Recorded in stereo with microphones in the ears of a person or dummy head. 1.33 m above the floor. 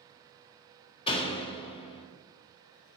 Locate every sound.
1.1 s a door slam: 25° left (ahead or behind), 1.3 m